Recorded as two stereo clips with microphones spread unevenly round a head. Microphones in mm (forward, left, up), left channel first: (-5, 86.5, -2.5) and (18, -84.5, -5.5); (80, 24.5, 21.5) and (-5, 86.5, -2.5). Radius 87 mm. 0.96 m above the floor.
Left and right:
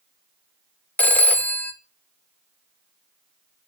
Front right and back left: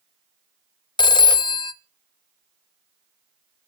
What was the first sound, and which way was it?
A phone ringing, 15° left.